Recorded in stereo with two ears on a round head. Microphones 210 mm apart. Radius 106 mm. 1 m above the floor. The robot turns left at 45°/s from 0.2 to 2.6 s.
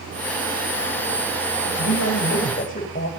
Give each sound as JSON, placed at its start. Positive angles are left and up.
{"t": 1.6, "sound": "a man speaking", "azimuth_deg": 75, "distance_m": 6.5}